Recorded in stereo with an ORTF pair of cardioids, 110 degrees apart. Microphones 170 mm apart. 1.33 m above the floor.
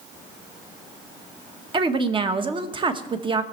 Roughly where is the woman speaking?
Ahead right.